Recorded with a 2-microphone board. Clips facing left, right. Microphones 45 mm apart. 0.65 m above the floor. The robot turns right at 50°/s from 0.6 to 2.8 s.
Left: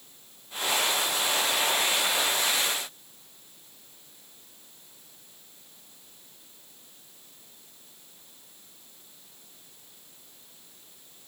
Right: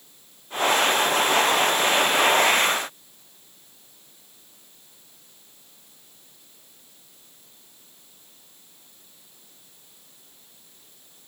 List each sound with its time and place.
Only background noise.